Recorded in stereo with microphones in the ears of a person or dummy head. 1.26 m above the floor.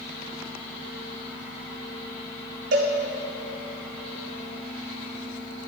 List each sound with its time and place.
2.7 s a cowbell: 45° right (ahead or behind), 1.0 m